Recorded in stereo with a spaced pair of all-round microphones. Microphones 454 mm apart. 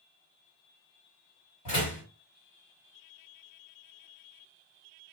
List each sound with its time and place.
1.6 s a door slam: 55° left (ahead or behind), 2 m